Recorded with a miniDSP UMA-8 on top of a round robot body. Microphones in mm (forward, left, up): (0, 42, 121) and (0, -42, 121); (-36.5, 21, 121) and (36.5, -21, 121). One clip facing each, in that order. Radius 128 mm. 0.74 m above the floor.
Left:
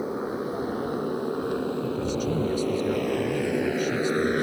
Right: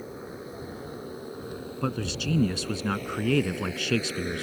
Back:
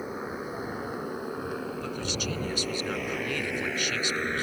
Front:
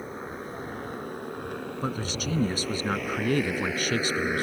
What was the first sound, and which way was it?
A motorcycle, 65° left.